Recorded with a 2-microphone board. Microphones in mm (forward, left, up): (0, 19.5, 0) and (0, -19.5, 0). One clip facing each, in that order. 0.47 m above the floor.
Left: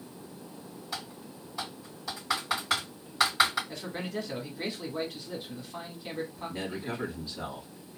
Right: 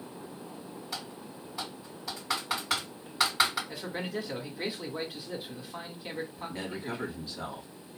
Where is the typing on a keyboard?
5° right (ahead or behind), 3 m.